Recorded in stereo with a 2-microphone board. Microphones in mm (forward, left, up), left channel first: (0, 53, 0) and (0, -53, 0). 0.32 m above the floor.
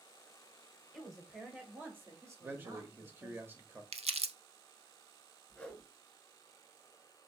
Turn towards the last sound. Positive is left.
turn(degrees=10)  # may be behind; listen again after turning